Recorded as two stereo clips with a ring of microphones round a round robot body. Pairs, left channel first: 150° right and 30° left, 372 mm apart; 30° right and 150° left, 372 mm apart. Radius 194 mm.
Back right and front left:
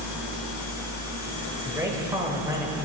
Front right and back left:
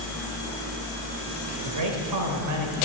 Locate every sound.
1.6 s a man speaking: 110° left, 3 m